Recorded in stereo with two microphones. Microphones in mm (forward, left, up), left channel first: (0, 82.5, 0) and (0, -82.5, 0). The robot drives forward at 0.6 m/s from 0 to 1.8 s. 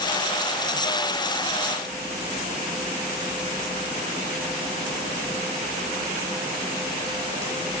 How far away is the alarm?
No alarm in this recording.